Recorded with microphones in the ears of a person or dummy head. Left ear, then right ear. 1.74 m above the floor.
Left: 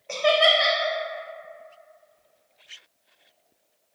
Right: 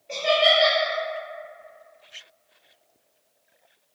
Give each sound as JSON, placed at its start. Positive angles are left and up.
{"t": 0.1, "sound": "laughter", "side_deg": 50, "distance_m": 0.5}